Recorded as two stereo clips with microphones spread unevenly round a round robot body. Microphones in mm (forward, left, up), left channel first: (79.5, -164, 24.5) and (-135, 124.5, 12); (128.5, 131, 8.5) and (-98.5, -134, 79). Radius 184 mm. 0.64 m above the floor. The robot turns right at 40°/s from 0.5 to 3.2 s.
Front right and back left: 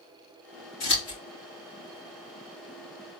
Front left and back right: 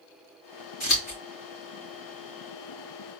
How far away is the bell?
I don't hear a bell.